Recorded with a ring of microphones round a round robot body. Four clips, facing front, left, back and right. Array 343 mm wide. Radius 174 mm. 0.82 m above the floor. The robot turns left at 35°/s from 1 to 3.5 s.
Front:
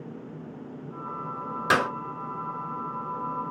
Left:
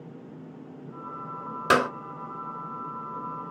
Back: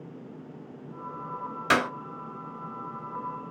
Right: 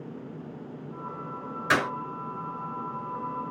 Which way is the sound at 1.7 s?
85° left.